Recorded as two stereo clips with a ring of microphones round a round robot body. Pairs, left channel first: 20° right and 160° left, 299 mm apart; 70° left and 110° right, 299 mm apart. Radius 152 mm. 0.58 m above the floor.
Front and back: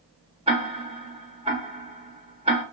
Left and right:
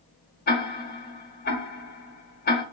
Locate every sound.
0.5 s ticking: 100° left, 1.0 m